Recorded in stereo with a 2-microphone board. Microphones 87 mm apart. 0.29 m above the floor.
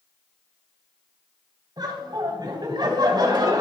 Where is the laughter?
50° right (ahead or behind), 2.0 m.